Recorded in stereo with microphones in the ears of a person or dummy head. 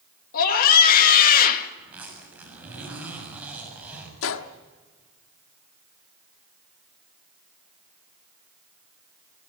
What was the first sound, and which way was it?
A scream, 45° left (ahead or behind).